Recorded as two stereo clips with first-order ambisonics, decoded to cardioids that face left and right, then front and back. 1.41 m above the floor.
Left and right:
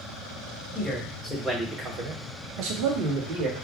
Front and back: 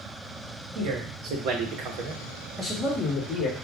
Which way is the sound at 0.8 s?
Straight behind.